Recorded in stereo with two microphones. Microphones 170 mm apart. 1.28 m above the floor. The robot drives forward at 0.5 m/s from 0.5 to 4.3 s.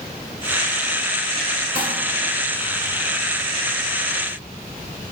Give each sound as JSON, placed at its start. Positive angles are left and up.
{"t": 1.8, "sound": "crumpling", "side_deg": 65, "distance_m": 2.0}